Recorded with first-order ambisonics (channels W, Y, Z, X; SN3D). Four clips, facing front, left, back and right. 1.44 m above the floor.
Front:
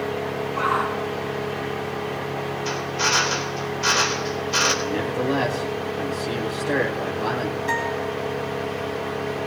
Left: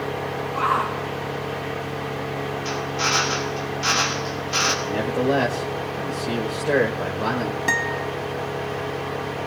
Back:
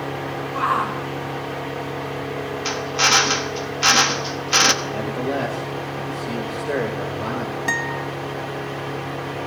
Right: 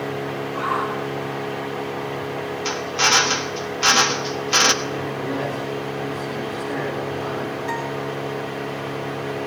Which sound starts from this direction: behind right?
A drill, at 2.6 s.